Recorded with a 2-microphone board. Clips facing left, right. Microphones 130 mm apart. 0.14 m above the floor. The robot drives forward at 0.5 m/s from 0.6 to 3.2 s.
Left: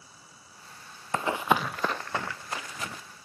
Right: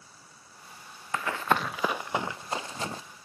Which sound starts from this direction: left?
Running footsteps, at 1.1 s.